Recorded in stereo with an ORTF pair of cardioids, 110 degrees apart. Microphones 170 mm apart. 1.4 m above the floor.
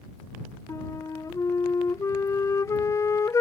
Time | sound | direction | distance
0.7 | a flute | 20° left | ?